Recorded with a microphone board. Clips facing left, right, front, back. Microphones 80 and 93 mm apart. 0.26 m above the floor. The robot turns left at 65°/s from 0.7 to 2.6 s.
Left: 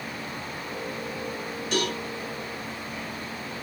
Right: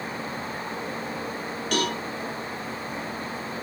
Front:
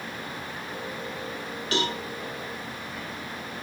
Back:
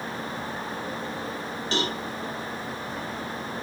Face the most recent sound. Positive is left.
turn(degrees=-175)